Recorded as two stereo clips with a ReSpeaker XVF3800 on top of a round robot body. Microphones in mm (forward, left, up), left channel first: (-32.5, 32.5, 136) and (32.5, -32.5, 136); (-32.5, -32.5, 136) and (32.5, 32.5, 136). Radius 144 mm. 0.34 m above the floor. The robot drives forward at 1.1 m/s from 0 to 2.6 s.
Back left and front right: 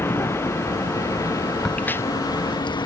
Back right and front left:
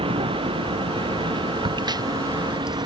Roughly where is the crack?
Ahead left.